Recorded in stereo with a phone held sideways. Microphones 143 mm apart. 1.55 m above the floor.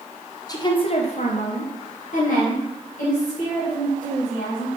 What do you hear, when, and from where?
0.5 s a woman speaking: 25° left (ahead or behind), 0.7 m; by 4.7 s 60° left (ahead or behind), 2.5 m